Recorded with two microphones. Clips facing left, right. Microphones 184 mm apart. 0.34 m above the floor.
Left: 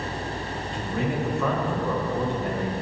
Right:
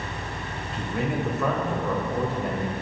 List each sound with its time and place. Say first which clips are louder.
0.7 s a man speaking: even; 5° right (ahead or behind), 1.1 m